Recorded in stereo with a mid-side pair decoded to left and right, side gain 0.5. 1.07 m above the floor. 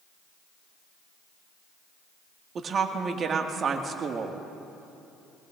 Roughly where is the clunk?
I don't hear a clunk.